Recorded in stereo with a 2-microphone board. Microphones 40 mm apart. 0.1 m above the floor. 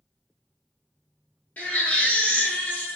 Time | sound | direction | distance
1.6 | a baby crying | 40° left (ahead or behind) | 1.0 m